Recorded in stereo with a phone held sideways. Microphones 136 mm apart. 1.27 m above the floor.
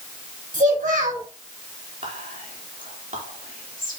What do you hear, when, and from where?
0.5 s a child speaking: 85° right, 3.5 m
2.0 s whispering: 70° right (ahead or behind), 3.5 m